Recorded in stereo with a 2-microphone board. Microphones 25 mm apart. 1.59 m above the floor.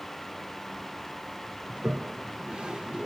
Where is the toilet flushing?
45° right (ahead or behind), 0.6 m.